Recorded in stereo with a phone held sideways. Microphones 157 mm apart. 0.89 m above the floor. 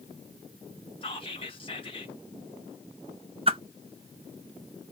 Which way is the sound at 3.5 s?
35° right (ahead or behind).